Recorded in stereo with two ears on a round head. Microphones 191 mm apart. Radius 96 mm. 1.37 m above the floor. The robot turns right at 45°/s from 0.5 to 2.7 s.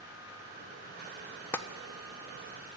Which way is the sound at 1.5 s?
10° left (ahead or behind).